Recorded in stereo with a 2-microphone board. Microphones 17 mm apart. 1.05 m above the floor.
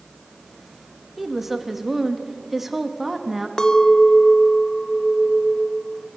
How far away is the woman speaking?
About 1.9 m.